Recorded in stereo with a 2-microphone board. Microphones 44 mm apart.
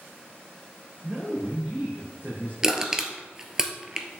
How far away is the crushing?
About 1.2 m.